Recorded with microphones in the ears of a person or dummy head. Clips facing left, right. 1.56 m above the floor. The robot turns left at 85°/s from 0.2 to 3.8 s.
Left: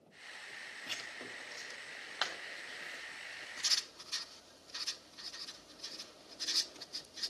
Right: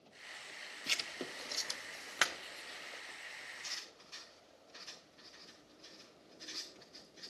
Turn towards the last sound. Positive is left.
turn(degrees=75)  # may be behind; listen again after turning